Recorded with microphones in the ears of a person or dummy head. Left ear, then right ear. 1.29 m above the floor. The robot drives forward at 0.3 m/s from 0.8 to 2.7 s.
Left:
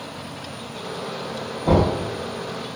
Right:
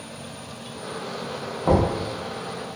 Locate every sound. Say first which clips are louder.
1.6 s knocking: left 1 dB; 55° right (ahead or behind), 0.9 m; by 1.9 s 50° right (ahead or behind), 1.0 m